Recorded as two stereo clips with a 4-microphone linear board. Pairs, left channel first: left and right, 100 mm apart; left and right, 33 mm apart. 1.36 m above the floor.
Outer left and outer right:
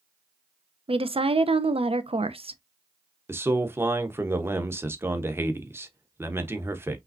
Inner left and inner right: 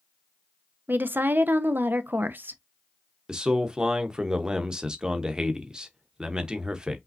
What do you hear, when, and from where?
0.9 s a woman speaking: 65° right (ahead or behind), 0.7 m
3.3 s a man speaking: 20° right (ahead or behind), 1.0 m